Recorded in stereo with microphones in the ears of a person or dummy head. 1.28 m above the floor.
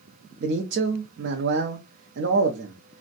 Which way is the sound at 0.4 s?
55° right (ahead or behind).